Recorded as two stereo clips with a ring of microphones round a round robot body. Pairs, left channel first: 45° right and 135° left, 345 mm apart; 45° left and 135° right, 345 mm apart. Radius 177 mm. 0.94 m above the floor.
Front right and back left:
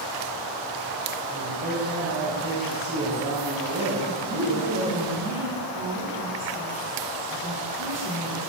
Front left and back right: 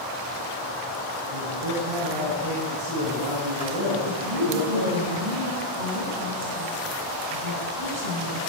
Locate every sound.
1.3 s a man speaking: 165° right, 7.5 m; by 5.0 s 160° right, 5 m
4.0 s a woman speaking: 165° right, 5.5 m